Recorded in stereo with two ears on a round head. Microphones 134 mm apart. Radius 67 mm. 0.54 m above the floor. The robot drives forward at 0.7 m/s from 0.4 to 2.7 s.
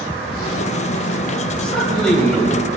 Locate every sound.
1.6 s a man speaking: 5° left (ahead or behind), 2 m